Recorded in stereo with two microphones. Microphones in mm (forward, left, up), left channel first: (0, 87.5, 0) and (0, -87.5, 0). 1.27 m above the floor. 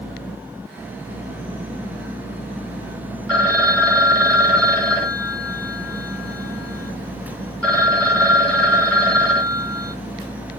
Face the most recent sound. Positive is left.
turn(degrees=10)  # may be behind; listen again after turning